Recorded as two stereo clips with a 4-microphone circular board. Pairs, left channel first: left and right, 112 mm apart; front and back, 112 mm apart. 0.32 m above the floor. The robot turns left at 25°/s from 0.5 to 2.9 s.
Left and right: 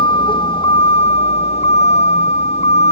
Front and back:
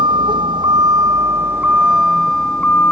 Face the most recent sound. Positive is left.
turn(degrees=75)